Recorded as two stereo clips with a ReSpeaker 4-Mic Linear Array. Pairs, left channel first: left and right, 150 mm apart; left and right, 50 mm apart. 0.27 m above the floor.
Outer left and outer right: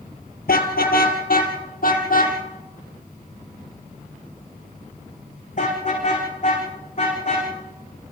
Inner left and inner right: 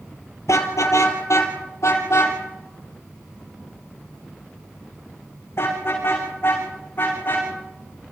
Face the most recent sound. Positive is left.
turn(degrees=50)  # may be behind; listen again after turning